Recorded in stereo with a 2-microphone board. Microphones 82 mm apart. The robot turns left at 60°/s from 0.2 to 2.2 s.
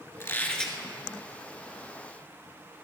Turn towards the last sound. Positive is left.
turn(degrees=-85)